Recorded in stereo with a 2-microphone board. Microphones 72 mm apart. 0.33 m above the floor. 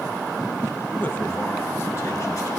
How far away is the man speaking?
About 1.4 m.